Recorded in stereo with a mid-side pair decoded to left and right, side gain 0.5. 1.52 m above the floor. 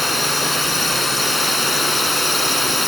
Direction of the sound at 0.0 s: 10° left.